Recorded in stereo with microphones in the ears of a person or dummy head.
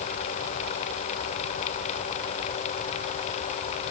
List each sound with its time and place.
Only background noise.